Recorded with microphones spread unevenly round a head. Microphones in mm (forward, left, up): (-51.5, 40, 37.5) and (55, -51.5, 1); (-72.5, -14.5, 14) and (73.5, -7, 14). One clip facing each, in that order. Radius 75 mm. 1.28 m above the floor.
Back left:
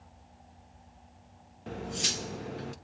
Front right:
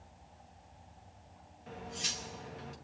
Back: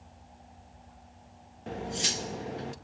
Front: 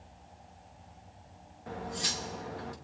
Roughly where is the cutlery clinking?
Behind left.